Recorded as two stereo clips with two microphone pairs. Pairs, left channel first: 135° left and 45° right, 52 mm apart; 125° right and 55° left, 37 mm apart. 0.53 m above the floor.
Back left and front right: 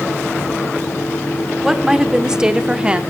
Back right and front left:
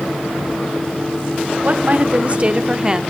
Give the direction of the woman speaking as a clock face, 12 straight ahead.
11 o'clock.